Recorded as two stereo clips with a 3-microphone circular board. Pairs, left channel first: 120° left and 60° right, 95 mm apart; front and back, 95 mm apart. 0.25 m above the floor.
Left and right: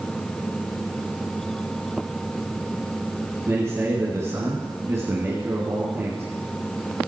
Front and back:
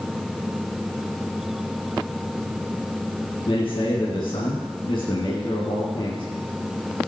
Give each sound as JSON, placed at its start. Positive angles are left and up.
{"t": 3.5, "sound": "a man speaking", "azimuth_deg": 0, "distance_m": 2.5}